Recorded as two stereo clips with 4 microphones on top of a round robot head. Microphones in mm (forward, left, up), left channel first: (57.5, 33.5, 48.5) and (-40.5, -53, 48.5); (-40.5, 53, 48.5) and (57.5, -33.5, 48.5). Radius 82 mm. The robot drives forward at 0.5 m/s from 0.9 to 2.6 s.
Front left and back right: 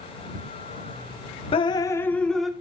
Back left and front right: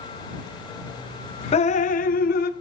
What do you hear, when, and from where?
1.5 s dripping: 95° left, 0.6 m; by 2.5 s 135° left, 0.8 m